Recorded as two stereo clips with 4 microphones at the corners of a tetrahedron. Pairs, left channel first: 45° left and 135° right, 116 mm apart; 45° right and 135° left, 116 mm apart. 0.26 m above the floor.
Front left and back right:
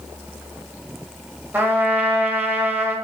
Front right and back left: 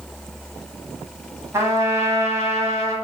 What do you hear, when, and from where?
1.5 s a trumpet: 170° left, 1.3 m